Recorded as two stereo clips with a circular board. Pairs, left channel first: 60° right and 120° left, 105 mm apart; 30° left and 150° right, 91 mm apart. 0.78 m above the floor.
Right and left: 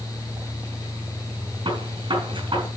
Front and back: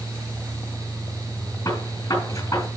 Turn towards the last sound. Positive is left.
turn(degrees=80)